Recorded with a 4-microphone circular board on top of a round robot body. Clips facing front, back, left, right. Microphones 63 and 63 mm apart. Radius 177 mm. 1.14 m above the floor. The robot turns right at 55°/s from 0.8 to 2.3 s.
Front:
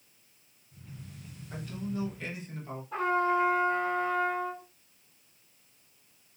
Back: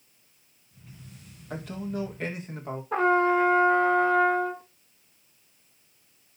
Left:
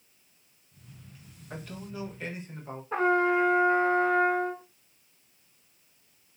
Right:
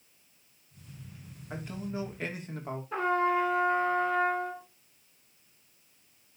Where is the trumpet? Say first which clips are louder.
Back 5 dB, left 3 dB; 160° left, 0.6 m.